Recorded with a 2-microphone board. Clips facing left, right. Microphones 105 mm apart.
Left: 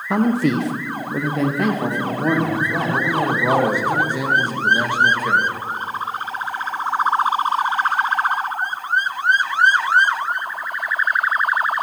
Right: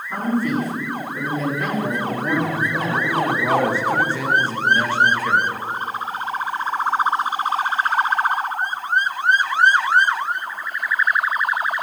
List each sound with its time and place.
0.1 s a man speaking: 85° left, 0.8 m; by 3.0 s 65° left (ahead or behind), 2 m
2.9 s a man speaking: 15° left (ahead or behind), 1.2 m